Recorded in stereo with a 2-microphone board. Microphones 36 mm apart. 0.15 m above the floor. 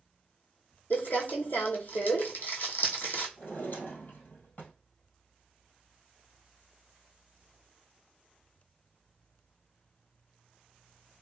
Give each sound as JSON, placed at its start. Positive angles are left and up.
{"t": 0.9, "sound": "crumpling", "side_deg": 60, "distance_m": 1.2}
{"t": 3.4, "sound": "a drawer", "side_deg": 55, "distance_m": 1.6}